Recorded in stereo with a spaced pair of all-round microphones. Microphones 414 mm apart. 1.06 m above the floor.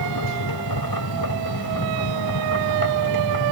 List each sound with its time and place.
0.0 s a machine running: 65° left (ahead or behind)